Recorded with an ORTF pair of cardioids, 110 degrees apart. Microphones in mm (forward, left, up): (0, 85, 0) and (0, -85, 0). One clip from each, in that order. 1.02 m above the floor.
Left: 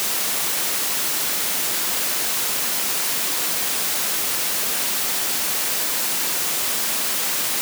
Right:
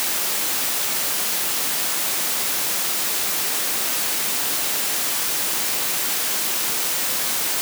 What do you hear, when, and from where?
Only background noise.